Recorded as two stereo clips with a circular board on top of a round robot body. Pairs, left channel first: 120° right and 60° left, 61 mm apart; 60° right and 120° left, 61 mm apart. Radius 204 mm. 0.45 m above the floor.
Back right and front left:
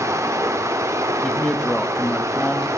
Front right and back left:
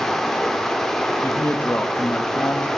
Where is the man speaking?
45° right, 1.1 m.